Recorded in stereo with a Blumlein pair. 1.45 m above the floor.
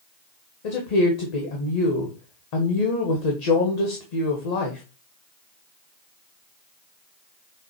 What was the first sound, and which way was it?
A woman speaking, 45° left.